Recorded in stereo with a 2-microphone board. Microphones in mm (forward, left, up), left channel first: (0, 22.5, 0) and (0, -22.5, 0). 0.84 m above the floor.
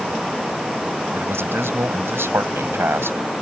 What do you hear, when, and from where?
1.1 s a man speaking: 60° right (ahead or behind)